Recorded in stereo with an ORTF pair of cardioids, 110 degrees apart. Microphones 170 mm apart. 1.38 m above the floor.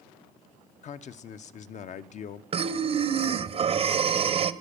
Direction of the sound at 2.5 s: 35° right.